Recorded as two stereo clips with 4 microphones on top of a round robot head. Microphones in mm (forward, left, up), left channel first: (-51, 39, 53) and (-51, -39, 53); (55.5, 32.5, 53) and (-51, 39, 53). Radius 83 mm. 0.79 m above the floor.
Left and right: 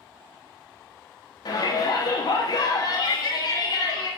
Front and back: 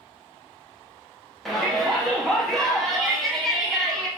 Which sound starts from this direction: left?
A shout, at 1.4 s.